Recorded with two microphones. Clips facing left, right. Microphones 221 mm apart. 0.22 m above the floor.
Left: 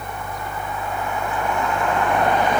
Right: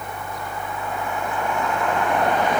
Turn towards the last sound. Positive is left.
No sound to turn to.